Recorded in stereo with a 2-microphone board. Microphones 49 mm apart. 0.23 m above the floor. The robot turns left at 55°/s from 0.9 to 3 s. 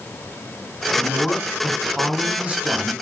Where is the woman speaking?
40° left, 1.3 m; by 2.9 s 70° right, 1.3 m.